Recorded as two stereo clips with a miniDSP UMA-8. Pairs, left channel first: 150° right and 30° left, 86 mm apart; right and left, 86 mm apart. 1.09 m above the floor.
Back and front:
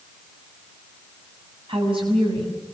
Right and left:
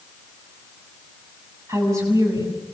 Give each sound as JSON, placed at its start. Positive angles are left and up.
{"t": 1.7, "sound": "a woman speaking", "azimuth_deg": 35, "distance_m": 7.0}